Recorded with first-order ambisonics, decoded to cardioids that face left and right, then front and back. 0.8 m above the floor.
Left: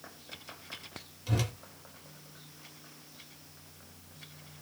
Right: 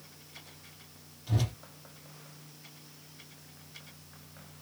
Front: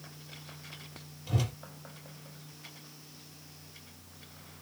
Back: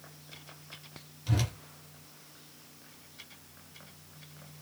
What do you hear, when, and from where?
1.3 s a whoosh: 140° left, 1.5 m